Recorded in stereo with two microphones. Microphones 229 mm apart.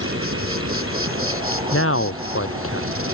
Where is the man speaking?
70° left (ahead or behind).